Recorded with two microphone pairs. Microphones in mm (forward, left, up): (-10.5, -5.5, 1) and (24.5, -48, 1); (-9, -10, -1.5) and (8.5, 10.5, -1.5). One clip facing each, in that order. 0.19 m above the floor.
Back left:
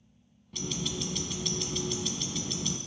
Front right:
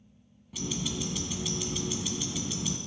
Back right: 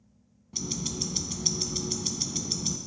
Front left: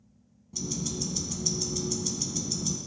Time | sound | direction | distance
0.5 | ticking | 135° right | 0.7 m